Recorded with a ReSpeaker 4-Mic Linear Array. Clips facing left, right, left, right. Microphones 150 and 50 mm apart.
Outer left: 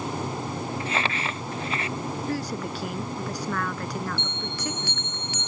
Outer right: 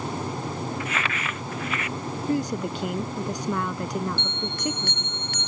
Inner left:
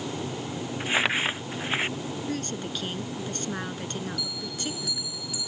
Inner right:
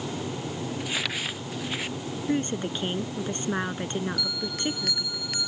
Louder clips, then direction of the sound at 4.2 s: Outer right 2 dB, inner right 3 dB; 60° right (ahead or behind).